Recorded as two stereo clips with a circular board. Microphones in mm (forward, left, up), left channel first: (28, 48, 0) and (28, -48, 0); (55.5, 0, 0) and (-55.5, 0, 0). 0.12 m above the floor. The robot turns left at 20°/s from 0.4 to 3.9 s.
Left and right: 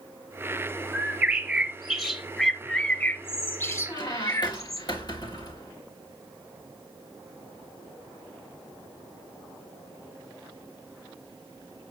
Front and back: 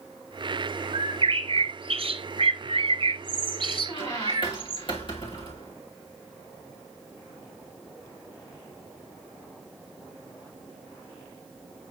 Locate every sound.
0.9 s a bird: 160° right, 0.9 m; by 4.8 s 140° left, 0.9 m
3.9 s a squeak: 45° left, 2.5 m